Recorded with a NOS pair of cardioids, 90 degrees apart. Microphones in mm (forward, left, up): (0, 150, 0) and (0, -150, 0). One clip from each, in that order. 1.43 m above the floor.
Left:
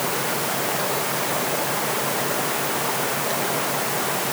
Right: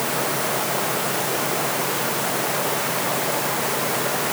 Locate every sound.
Only background noise.